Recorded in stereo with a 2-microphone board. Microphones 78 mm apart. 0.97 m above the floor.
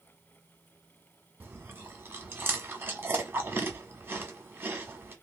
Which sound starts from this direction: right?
Chewing, at 1.4 s.